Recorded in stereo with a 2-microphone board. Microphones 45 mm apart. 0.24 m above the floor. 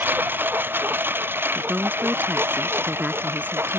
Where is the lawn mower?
50° right (ahead or behind); by 3.8 s 65° right (ahead or behind).